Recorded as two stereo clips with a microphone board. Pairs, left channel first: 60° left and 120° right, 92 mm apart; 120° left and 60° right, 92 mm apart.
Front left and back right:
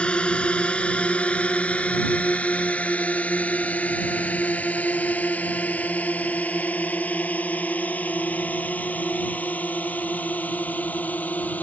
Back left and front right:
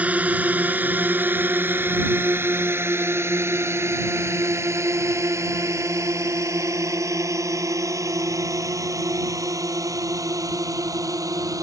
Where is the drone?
5° right; by 11.6 s 10° right.